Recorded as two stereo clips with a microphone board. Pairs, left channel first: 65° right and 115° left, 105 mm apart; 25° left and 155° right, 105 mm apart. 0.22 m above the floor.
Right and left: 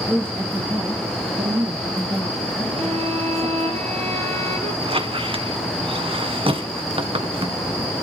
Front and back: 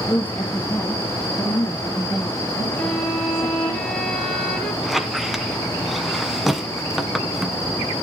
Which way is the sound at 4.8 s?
115° left.